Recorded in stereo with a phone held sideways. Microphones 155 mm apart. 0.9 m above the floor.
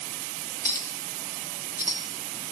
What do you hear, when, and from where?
0.7 s a clink: 25° left (ahead or behind), 0.8 m